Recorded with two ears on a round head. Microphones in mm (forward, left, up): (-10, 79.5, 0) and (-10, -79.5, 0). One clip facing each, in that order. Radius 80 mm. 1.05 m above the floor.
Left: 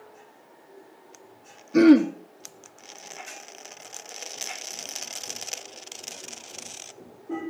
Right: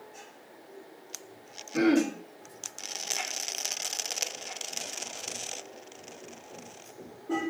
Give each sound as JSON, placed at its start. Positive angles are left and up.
{"t": 1.7, "sound": "throat clearing", "side_deg": 60, "distance_m": 1.6}